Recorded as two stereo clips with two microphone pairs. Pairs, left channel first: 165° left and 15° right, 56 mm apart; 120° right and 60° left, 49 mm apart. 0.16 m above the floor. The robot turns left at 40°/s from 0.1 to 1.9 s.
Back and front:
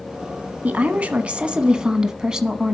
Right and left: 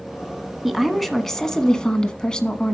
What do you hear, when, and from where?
0.6 s a woman speaking: 25° right, 1.2 m; by 2.7 s 75° right, 1.2 m